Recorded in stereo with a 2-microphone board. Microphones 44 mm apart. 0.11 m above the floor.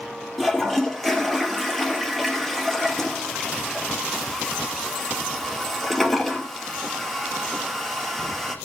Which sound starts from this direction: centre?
A toilet flushing, at 0.4 s.